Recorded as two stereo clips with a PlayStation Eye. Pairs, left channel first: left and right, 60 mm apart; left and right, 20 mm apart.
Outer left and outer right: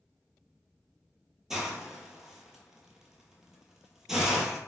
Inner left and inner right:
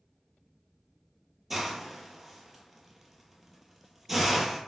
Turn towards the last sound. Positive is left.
turn(degrees=-5)  # may be behind; listen again after turning